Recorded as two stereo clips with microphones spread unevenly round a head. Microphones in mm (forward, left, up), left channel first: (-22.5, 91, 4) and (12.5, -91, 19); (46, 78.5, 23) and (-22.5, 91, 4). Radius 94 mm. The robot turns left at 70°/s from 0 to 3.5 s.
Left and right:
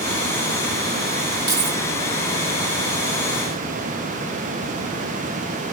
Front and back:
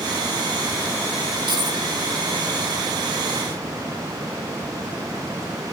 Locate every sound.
1.5 s keys jangling: 150° right, 7 m; by 1.8 s 170° right, 7 m